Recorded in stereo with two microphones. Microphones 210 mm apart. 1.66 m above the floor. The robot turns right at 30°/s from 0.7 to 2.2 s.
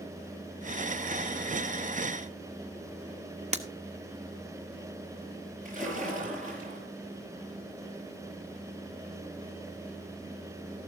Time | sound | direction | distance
3.5 | breaking glass | 30° right (ahead or behind) | 1.1 m
5.7 | a splash | 40° right (ahead or behind) | 5.5 m